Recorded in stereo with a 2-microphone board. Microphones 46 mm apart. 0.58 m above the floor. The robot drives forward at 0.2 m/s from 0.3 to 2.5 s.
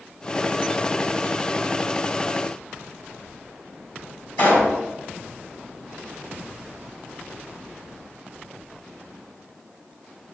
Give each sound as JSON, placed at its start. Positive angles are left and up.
{"t": 4.4, "sound": "a pop", "side_deg": 30, "distance_m": 2.5}